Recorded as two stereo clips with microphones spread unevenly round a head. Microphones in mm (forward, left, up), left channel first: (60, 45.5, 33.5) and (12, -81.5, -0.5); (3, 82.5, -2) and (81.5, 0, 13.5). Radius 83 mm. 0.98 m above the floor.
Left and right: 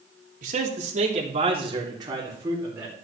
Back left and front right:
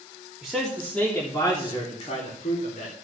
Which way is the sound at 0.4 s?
135° right.